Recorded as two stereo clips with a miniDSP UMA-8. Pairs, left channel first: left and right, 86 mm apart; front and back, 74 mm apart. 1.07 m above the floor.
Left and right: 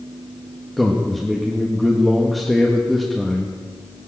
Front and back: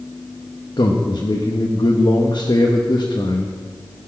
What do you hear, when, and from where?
0.8 s a man speaking: straight ahead, 1.3 m